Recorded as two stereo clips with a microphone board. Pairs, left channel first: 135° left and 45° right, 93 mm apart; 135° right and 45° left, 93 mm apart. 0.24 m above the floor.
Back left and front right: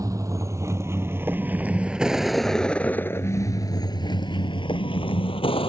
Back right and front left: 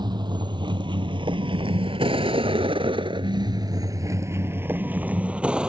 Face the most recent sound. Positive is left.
turn(degrees=125)